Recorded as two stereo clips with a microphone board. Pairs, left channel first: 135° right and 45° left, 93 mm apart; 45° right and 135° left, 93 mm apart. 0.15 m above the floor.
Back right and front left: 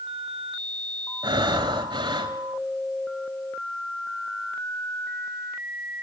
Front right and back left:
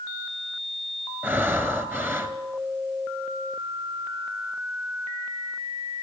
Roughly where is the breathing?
Left.